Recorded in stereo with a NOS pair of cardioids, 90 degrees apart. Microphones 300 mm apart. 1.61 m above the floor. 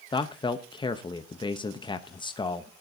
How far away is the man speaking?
About 0.8 m.